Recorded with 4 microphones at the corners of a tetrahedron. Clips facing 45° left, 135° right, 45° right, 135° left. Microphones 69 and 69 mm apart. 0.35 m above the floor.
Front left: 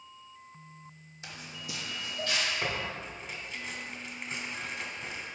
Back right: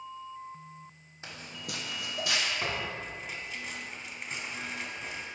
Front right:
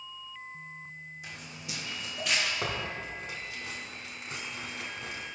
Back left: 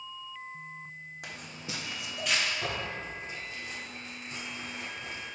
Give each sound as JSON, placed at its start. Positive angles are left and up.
{"t": 1.2, "sound": "footsteps", "azimuth_deg": 165, "distance_m": 1.1}
{"t": 2.6, "sound": "tearing paper", "azimuth_deg": -50, "distance_m": 1.0}